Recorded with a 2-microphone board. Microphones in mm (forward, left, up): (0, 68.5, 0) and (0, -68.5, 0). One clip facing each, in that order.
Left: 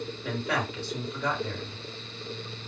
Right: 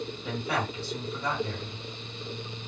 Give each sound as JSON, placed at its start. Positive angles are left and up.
{"t": 0.2, "sound": "a man speaking", "side_deg": 60, "distance_m": 2.0}